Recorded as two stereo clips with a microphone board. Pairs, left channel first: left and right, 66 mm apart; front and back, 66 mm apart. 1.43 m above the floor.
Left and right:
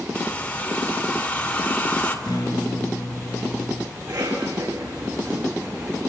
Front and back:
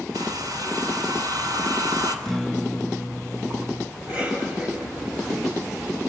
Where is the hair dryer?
160° left, 3.5 m.